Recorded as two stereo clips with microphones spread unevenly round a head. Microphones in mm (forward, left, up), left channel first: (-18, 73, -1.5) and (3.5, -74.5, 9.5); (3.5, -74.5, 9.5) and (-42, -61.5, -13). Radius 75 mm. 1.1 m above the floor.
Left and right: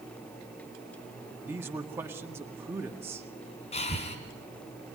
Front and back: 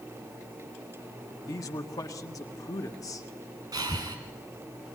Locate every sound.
1.5 s a man speaking: 5° right, 1.8 m
3.7 s breathing: 150° left, 3 m